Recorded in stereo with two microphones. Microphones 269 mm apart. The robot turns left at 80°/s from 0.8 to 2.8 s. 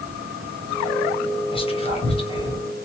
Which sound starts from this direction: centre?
Whispering, at 1.5 s.